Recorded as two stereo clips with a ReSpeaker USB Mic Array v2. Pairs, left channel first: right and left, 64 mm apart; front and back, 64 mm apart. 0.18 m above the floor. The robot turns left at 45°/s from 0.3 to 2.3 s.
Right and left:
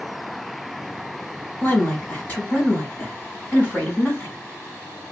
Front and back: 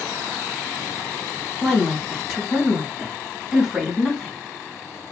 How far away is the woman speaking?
About 1.2 m.